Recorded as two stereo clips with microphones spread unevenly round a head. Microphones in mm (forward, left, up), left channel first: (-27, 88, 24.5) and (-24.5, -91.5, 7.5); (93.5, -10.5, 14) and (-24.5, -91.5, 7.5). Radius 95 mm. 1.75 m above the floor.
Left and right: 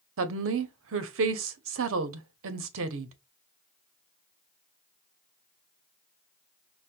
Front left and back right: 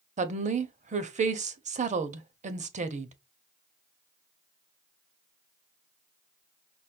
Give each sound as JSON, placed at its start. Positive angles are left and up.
{"t": 0.2, "sound": "a woman speaking", "azimuth_deg": -105, "distance_m": 0.7}